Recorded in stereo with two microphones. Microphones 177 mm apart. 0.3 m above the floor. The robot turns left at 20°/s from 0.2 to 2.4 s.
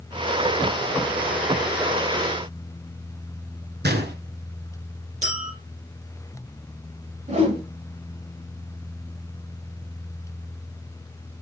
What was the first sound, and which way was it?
A gunshot, 70° right (ahead or behind).